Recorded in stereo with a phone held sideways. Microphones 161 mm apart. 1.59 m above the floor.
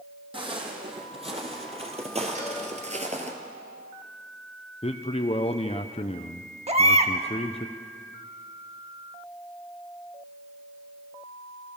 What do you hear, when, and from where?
0.3 s footsteps: 35° right (ahead or behind), 4 m; by 3.4 s 45° right (ahead or behind), 2 m
2.4 s a cowbell: 50° right (ahead or behind), 5.5 m
4.8 s a man speaking: 40° left (ahead or behind), 0.7 m
6.7 s a baby crying: 40° right (ahead or behind), 1.3 m